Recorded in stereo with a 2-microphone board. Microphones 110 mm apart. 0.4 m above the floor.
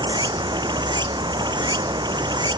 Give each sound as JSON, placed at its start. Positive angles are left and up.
{"t": 0.0, "sound": "running water", "side_deg": -40}